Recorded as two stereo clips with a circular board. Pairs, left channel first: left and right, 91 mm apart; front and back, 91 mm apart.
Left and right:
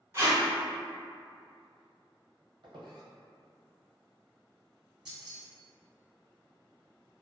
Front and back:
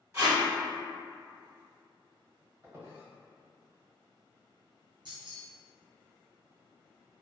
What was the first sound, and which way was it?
Tape being pulled, 135° right.